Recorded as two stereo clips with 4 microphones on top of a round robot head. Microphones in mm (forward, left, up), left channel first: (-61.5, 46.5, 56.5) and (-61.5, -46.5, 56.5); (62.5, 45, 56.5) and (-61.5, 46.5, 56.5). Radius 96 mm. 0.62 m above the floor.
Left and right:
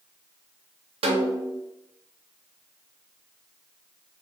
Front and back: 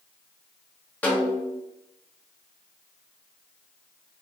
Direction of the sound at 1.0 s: 80° right.